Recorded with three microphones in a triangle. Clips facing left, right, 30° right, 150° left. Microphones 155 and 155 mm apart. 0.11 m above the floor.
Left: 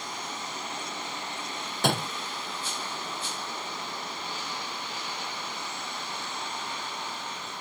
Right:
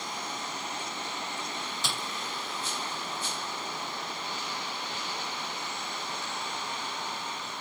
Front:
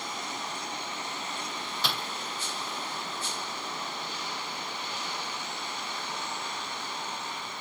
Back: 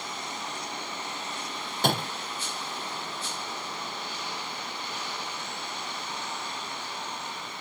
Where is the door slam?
115° left.